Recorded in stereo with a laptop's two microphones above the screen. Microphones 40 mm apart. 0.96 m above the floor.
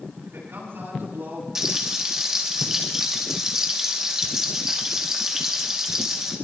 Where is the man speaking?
70° right (ahead or behind), 8.5 m.